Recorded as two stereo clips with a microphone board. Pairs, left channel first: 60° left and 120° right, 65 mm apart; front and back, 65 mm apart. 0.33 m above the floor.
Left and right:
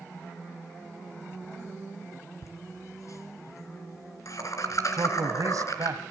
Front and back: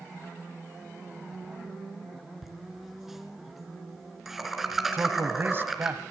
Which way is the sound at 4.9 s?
130° right.